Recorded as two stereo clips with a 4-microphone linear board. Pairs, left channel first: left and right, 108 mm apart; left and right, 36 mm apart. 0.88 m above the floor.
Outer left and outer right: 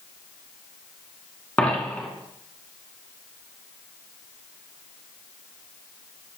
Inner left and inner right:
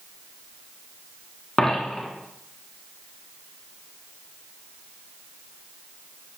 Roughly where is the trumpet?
No trumpet in this recording.